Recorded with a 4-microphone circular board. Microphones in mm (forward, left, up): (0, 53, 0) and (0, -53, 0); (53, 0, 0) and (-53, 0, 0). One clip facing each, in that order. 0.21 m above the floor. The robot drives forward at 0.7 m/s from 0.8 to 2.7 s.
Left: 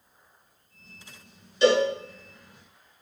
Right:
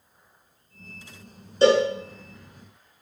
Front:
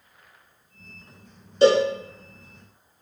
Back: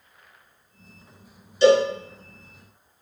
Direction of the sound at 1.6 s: 40° right.